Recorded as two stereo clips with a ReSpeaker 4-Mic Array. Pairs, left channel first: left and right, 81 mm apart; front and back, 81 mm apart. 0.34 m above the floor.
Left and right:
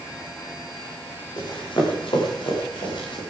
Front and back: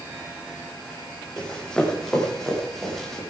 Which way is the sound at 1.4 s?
85° left.